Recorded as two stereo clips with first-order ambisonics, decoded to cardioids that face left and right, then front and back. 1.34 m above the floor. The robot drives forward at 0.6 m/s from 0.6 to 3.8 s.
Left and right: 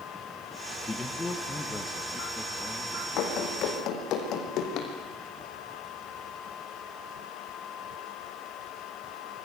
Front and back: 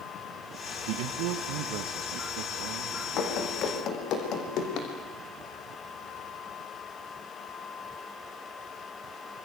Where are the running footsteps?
50° left, 5 m; by 4.9 s 45° left, 4 m.